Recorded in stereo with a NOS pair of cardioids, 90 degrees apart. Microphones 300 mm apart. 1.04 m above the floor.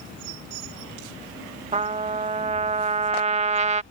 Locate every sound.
1.7 s a trumpet: 20° right